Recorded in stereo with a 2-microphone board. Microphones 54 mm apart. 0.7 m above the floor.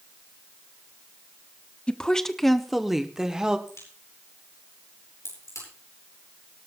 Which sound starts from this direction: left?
A crack, at 3.7 s.